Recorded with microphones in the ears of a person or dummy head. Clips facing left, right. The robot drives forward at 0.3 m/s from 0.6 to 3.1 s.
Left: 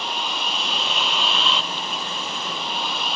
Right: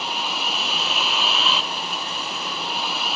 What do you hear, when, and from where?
0.0 s a vehicle: centre (ahead or behind)